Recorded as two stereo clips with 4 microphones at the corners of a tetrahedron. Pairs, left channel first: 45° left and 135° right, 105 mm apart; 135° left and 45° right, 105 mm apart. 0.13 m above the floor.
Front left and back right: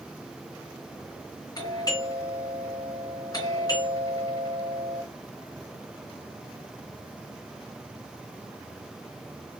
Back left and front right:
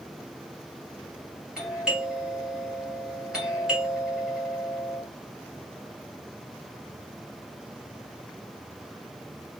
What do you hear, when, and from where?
1.6 s a doorbell: 35° left, 2.5 m